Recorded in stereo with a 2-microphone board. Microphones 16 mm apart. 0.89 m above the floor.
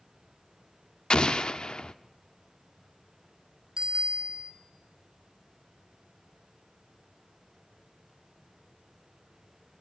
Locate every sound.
1.1 s an explosion: 65° left (ahead or behind), 0.6 m
3.8 s a bicycle bell: 55° right (ahead or behind), 3 m